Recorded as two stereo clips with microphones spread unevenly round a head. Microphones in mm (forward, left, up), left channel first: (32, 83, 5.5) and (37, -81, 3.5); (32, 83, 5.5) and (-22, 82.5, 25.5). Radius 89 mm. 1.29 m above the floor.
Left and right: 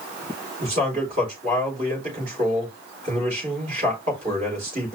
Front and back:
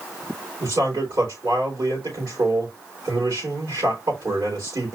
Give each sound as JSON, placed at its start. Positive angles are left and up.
{"t": 0.6, "sound": "a man speaking", "azimuth_deg": -140, "distance_m": 3.5}